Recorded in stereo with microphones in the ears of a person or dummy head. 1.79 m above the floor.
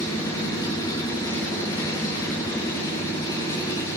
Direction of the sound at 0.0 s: 25° left (ahead or behind).